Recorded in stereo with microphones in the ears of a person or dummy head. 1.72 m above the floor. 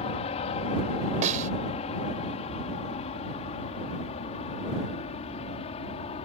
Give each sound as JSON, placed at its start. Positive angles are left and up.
{"t": 0.0, "sound": "an aircraft", "side_deg": 40}
{"t": 1.2, "sound": "a snare drum", "side_deg": -40}